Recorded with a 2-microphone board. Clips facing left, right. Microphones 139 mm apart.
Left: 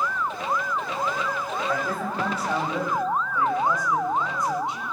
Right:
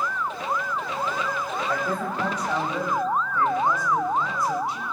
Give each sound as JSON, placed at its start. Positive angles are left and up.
{"t": 1.7, "sound": "a man speaking", "side_deg": 0, "distance_m": 5.0}